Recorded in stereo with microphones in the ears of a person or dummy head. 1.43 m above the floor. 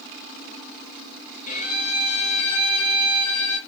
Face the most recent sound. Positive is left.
turn(degrees=45)  # may be behind; listen again after turning